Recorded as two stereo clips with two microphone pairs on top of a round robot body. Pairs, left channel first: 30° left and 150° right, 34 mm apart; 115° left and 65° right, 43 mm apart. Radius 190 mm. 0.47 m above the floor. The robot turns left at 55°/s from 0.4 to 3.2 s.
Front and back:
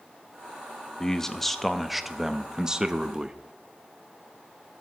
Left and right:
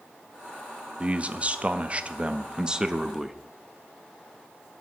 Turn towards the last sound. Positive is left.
turn(degrees=-150)